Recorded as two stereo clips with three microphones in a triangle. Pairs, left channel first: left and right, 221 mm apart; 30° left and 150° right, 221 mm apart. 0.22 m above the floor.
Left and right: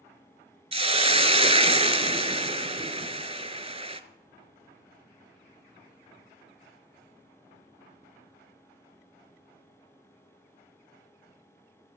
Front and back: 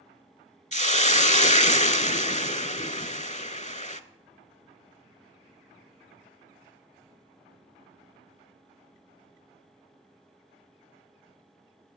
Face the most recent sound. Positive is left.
turn(degrees=-30)